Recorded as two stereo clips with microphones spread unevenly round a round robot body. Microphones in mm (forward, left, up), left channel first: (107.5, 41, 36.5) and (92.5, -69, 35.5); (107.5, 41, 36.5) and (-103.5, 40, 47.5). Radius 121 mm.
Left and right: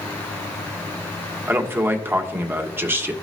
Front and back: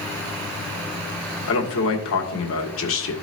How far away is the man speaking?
About 1.7 m.